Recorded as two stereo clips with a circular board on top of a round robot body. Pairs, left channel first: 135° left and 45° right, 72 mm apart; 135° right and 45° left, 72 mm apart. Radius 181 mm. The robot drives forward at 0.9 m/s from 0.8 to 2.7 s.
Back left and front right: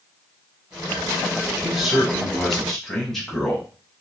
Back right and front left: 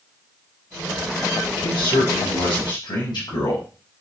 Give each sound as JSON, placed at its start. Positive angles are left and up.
{"t": 1.6, "sound": "a man speaking", "azimuth_deg": -130, "distance_m": 3.5}